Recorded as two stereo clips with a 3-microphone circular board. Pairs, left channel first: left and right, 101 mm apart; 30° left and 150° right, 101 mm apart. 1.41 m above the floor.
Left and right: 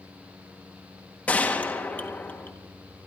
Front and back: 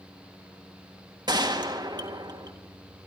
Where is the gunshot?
165° left, 1.7 m.